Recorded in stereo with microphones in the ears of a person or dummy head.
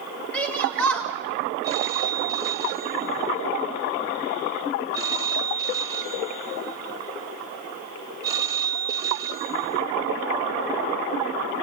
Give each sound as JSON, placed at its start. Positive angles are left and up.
{"t": 0.3, "sound": "a shout", "side_deg": 10, "distance_m": 3.5}
{"t": 1.6, "sound": "a phone ringing", "side_deg": -20, "distance_m": 2.5}